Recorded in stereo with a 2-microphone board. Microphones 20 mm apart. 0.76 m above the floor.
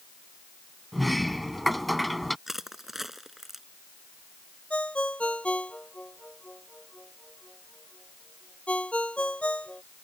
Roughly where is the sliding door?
Centre.